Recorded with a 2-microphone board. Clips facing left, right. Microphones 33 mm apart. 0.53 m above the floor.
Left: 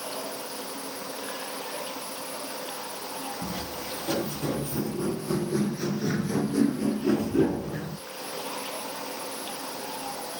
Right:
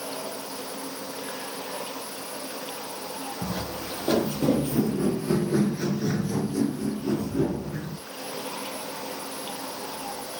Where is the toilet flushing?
I don't hear a toilet flushing.